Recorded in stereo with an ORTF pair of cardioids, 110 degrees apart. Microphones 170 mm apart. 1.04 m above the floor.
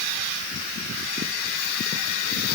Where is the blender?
I don't hear a blender.